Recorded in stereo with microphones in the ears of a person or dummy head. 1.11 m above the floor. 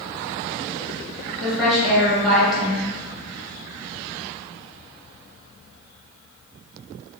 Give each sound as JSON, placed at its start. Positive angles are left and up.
{"t": 1.4, "sound": "a woman speaking", "side_deg": 0, "distance_m": 1.1}